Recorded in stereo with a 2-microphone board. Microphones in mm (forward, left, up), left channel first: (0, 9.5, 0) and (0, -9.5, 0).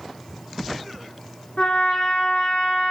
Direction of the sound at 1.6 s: 60° left (ahead or behind).